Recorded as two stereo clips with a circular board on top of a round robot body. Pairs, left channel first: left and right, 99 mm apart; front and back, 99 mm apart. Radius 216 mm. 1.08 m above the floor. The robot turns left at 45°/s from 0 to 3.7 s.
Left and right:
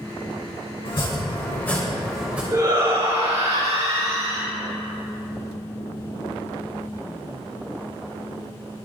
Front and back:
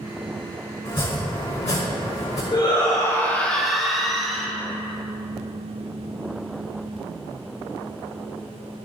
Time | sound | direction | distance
0.8 | chopping | 55° left | 3.5 m
2.5 | a shout | 35° right | 3 m